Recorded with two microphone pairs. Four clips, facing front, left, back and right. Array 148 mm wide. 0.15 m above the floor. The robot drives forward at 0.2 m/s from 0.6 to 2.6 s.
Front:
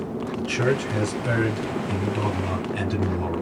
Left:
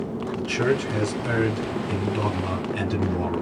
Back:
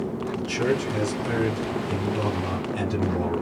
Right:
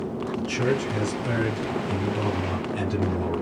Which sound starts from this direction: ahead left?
A man speaking, at 0.4 s.